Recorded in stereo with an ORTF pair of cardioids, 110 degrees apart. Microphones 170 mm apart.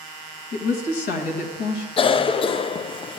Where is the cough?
30° left, 0.6 m.